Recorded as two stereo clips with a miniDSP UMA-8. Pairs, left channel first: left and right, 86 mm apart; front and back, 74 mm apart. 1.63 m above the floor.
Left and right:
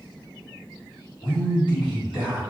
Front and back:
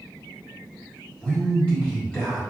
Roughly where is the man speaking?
Left.